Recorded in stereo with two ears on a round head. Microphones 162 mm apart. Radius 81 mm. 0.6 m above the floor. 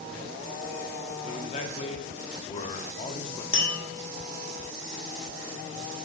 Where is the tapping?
30° left (ahead or behind), 1.3 m.